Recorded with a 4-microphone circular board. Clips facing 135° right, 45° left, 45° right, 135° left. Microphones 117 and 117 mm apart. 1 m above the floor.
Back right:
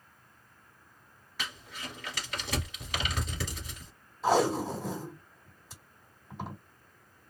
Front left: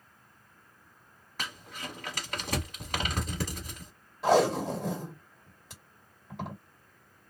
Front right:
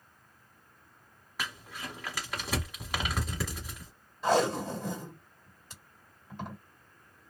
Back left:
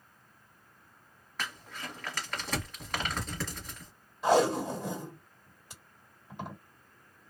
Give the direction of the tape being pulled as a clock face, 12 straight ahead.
10 o'clock.